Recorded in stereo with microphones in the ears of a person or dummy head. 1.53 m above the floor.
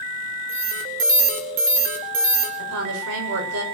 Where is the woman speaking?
90° right, 7 m.